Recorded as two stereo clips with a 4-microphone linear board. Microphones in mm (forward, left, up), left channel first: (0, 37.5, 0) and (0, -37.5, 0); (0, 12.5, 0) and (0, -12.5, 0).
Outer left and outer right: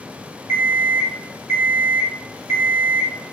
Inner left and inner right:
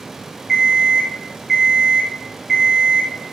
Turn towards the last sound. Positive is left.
turn(degrees=-40)  # may be behind; listen again after turning